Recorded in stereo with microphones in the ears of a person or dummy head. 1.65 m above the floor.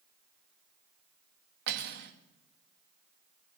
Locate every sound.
1.7 s cutlery clinking: 60° right (ahead or behind), 1.5 m